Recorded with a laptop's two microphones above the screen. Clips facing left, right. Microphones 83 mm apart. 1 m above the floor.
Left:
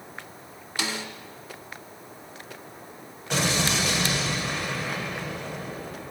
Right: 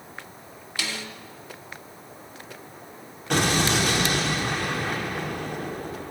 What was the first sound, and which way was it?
A snare drum, 20° left (ahead or behind).